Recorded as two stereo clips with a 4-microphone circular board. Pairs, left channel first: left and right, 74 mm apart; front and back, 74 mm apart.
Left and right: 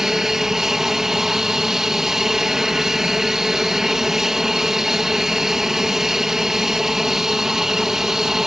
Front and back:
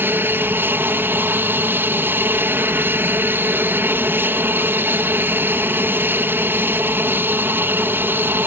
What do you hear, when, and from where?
0.0 s an aircraft: 170° right